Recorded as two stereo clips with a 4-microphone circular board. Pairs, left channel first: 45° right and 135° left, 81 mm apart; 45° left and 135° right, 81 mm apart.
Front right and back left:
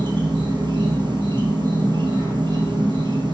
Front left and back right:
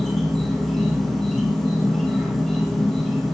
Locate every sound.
0.0 s an insect: 130° left, 1.8 m